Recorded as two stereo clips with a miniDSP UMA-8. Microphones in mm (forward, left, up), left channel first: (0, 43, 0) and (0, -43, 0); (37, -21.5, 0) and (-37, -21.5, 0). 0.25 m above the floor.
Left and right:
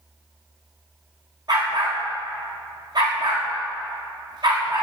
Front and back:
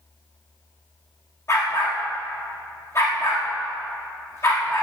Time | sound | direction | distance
1.5 | a dog barking | 50° right | 5.5 m